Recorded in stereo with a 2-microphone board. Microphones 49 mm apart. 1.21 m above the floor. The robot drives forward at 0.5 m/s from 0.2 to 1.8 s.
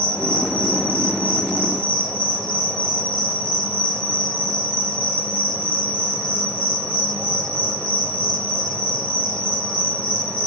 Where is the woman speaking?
I don't hear a woman speaking.